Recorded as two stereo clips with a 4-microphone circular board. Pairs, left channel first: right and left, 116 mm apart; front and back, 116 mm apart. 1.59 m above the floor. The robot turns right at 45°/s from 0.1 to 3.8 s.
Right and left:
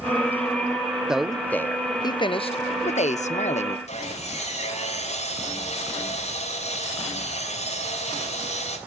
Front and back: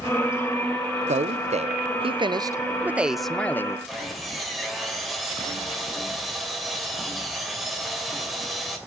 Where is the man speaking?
175° left, 0.7 m; by 3.8 s 65° right, 0.7 m.